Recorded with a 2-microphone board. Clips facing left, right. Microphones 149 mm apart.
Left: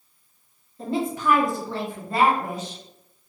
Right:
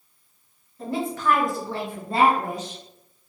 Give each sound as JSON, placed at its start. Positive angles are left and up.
{"t": 0.8, "sound": "a woman speaking", "side_deg": 25, "distance_m": 1.0}